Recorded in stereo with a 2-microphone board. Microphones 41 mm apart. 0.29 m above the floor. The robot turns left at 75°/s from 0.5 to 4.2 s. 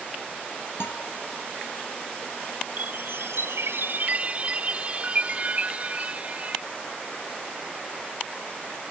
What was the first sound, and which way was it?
A guitar, 80° left.